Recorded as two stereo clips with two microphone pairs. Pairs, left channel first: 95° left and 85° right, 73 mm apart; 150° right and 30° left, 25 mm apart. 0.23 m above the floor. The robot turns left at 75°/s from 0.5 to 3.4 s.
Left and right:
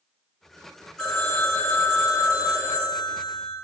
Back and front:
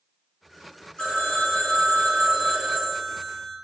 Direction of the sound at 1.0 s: 175° left.